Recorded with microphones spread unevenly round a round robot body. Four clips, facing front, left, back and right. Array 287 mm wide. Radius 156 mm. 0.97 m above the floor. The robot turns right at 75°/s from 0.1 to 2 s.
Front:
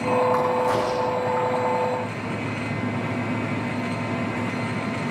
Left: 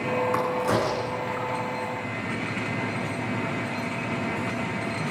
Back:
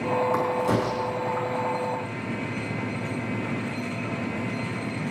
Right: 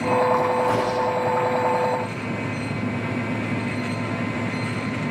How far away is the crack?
About 6 m.